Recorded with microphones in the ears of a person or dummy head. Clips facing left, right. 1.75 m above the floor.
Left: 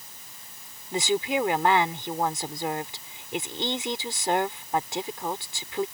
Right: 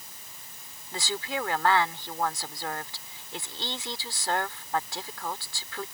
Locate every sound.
0.9 s a woman speaking: 20° left (ahead or behind)